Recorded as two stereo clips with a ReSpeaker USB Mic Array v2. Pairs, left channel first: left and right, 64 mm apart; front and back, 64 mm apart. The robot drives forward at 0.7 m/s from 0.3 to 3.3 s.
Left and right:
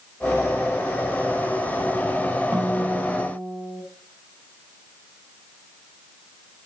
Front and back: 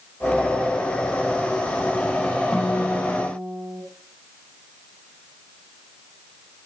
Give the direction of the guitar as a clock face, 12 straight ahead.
2 o'clock.